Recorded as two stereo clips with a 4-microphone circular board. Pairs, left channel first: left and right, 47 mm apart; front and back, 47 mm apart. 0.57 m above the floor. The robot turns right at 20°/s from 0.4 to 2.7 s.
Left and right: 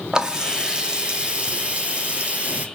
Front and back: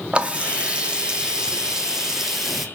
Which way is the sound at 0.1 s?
140° right.